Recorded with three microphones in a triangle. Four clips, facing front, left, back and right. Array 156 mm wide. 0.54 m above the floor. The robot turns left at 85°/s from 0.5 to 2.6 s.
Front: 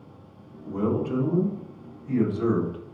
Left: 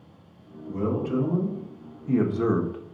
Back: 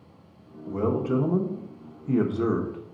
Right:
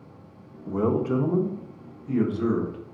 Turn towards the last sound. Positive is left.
turn(degrees=110)